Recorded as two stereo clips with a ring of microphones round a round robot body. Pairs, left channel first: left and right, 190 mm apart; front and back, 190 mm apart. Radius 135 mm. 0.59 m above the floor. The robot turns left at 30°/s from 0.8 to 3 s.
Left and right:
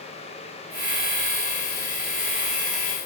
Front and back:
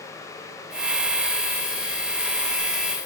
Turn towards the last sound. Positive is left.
No sound to turn to.